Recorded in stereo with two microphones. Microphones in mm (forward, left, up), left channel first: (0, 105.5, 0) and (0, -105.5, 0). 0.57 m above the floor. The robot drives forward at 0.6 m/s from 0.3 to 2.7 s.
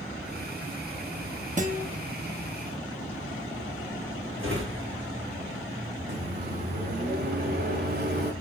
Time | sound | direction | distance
1.6 | a guitar | 35° right (ahead or behind) | 1.0 m
4.4 | a drawer | 70° right (ahead or behind) | 2.5 m
6.1 | a microwave | 50° right (ahead or behind) | 1.2 m